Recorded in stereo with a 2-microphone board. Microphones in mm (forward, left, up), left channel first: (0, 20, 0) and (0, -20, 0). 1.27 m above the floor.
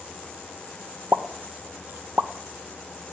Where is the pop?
65° right (ahead or behind), 0.9 m.